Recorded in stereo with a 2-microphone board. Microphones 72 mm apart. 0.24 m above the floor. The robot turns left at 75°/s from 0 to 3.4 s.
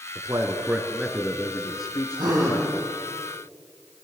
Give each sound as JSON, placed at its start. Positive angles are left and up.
{"t": 0.1, "sound": "a man speaking", "side_deg": -55, "distance_m": 3.5}
{"t": 2.1, "sound": "a gasp", "azimuth_deg": -105, "distance_m": 6.5}